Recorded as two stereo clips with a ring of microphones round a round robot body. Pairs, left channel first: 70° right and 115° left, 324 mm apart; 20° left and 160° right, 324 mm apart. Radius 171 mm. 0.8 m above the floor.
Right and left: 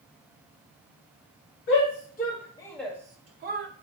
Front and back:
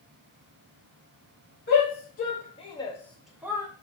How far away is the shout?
About 0.9 m.